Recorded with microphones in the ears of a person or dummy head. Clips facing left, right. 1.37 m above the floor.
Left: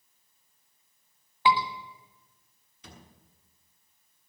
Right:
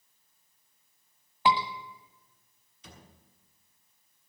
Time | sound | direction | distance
1.4 | a scream | 10° right (ahead or behind) | 1.4 m
2.8 | a thud | 55° left (ahead or behind) | 6 m